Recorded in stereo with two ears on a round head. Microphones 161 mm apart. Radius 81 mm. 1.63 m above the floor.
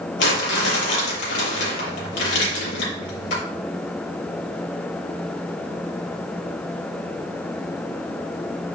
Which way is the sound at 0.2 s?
70° left (ahead or behind).